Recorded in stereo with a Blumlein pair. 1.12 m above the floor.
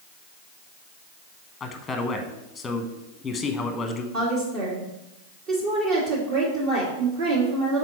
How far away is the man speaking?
About 0.9 m.